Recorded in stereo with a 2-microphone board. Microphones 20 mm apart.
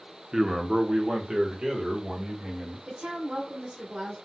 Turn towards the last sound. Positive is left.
turn(degrees=-70)  # may be behind; listen again after turning